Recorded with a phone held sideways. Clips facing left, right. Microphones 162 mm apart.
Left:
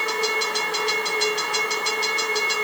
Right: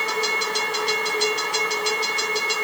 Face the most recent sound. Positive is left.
No sound to turn to.